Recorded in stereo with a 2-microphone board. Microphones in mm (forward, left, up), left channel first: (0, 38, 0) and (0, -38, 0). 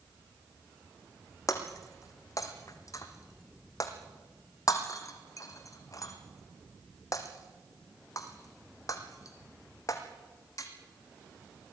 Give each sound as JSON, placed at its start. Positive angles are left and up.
{"t": 1.5, "sound": "breaking glass", "side_deg": 45, "distance_m": 2.5}